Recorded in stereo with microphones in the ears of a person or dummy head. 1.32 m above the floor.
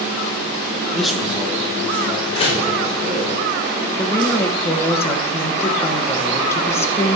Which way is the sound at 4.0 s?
10° left (ahead or behind).